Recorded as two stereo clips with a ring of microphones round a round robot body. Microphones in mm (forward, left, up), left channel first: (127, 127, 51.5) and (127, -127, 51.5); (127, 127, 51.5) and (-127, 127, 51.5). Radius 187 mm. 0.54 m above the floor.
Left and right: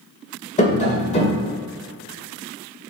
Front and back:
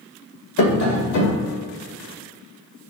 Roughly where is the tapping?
Ahead left.